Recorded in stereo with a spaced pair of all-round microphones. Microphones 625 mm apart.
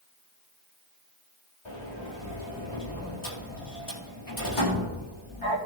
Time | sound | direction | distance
1.6 | a sliding door | 55° left (ahead or behind) | 4 m